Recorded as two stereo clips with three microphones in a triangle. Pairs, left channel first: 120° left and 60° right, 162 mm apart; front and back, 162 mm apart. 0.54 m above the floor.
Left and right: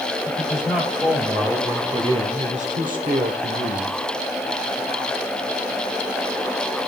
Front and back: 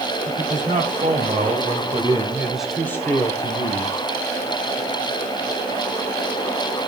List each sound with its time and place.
0.3 s a man speaking: 150° right, 3.5 m; by 4.1 s 30° right, 2.0 m